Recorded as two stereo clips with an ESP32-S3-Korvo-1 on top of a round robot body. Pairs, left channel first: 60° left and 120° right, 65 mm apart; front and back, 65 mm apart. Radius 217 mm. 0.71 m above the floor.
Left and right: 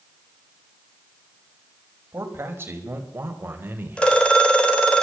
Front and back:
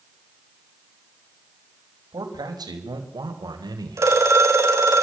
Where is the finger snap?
I don't hear a finger snap.